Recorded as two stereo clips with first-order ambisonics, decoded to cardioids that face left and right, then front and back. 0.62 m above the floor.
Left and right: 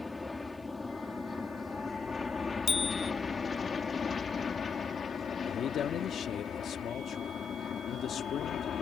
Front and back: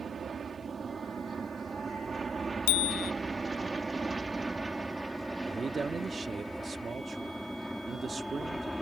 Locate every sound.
0.0 s an aircraft: 155° left; by 8.8 s 85° left
2.7 s a bicycle bell: 20° left
5.4 s a man speaking: 120° left